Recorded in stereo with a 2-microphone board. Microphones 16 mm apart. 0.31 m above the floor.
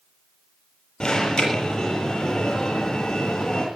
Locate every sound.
1.0 s an alarm: 55° left (ahead or behind), 7 m